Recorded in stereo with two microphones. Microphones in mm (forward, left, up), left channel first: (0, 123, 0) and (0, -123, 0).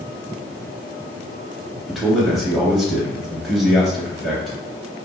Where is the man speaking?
Centre (ahead or behind), 0.9 m.